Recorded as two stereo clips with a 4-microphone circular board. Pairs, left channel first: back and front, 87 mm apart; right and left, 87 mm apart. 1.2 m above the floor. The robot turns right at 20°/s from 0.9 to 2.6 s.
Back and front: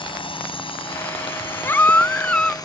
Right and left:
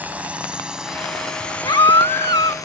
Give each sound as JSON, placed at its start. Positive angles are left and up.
{"t": 0.0, "sound": "a drone", "azimuth_deg": 165}
{"t": 1.6, "sound": "a baby crying", "azimuth_deg": -120}